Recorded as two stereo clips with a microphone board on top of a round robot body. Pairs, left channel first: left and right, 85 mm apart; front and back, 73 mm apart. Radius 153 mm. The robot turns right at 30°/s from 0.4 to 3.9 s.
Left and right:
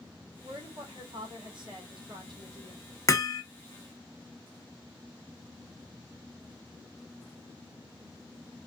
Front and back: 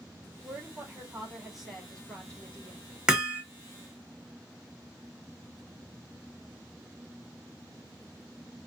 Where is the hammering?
105° left, 1.2 m; by 3.4 s 115° left, 1.2 m.